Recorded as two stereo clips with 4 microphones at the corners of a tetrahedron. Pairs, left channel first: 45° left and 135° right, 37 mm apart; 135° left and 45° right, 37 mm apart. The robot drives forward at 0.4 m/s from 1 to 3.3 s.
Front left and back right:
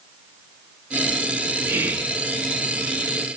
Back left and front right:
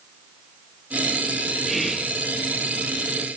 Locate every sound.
1.7 s whispering: 135° right, 1.0 m; by 2.2 s 140° right, 1.1 m